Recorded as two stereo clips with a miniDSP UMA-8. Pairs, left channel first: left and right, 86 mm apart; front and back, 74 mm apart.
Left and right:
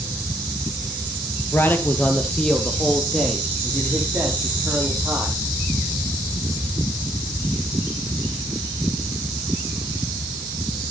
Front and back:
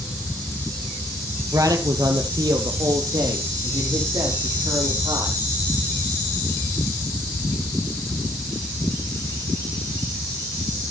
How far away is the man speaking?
About 2.5 m.